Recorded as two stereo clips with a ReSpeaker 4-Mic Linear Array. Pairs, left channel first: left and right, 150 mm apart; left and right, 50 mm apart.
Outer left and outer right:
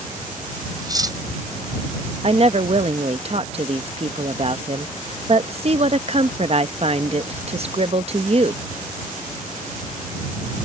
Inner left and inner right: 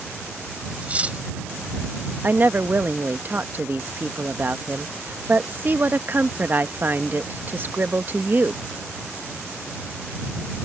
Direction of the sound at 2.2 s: 45° right (ahead or behind).